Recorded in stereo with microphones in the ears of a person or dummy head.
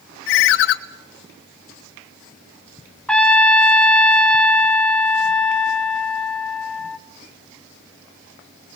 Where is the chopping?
I don't hear chopping.